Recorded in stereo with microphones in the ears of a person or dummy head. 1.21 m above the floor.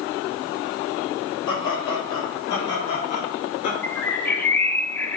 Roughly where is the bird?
Centre.